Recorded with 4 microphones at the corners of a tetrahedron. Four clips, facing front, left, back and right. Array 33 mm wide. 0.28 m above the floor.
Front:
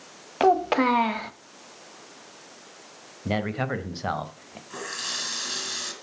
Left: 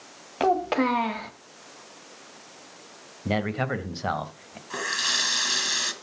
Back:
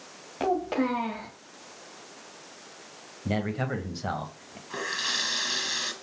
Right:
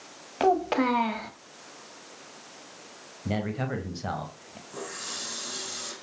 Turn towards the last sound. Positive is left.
turn(degrees=105)